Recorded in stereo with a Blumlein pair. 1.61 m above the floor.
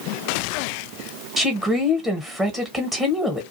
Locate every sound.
1.4 s a woman speaking: 10° right, 0.9 m